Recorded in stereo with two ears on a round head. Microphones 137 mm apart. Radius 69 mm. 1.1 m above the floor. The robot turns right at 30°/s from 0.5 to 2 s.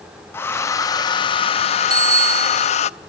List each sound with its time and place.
0.3 s a hair dryer: 20° left, 0.5 m; by 2.9 s 65° left, 0.5 m
1.9 s a bicycle bell: 25° right (ahead or behind), 2.5 m; by 2.7 s 20° right (ahead or behind), 2.5 m